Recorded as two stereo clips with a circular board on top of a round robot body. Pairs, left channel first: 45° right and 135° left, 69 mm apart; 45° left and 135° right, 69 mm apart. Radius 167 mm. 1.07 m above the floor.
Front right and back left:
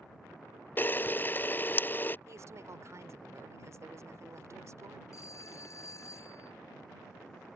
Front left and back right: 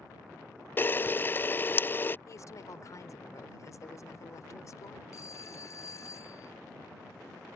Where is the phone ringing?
Straight ahead.